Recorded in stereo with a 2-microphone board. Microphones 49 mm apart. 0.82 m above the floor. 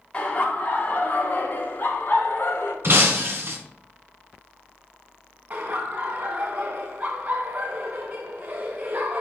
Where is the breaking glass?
55° right (ahead or behind), 1.8 m.